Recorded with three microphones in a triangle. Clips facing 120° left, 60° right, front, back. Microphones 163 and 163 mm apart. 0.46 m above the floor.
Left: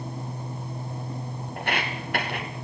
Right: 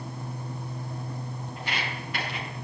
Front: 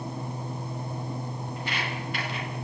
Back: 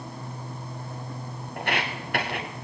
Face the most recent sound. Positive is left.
turn(degrees=150)